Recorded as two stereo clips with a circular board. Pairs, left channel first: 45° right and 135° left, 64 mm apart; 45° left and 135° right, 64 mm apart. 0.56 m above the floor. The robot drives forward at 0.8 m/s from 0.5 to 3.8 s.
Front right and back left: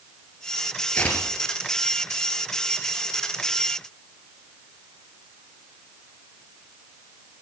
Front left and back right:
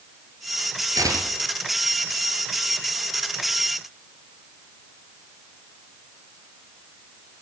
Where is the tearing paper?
115° right, 3 m; by 1.5 s 125° right, 3 m.